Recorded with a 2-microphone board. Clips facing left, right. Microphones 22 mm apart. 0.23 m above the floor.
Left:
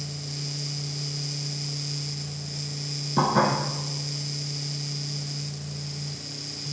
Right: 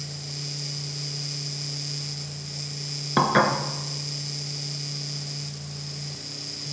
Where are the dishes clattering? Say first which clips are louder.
Right 2 dB; 65° right (ahead or behind), 1.9 m.